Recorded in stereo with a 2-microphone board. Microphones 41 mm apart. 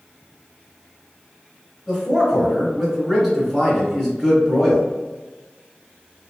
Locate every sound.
1.9 s a man speaking: 5° left (ahead or behind), 1.7 m